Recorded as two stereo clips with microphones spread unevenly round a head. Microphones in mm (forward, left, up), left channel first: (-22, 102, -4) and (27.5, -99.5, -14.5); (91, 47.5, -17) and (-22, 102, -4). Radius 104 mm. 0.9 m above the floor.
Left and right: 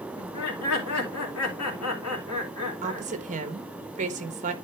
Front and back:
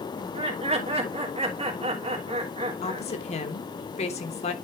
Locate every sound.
0.2 s laughter: 115° left, 3 m
2.8 s a woman speaking: 30° right, 1.2 m